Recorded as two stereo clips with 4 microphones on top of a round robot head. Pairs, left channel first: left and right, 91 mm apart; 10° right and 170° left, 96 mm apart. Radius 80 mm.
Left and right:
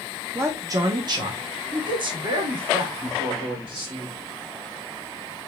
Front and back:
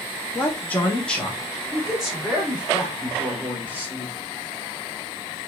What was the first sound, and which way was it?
A man speaking, 50° right.